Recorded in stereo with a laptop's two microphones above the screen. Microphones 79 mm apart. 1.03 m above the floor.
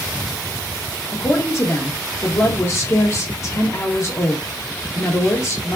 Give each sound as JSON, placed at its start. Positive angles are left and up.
{"t": 1.1, "sound": "a woman speaking", "side_deg": 40, "distance_m": 1.4}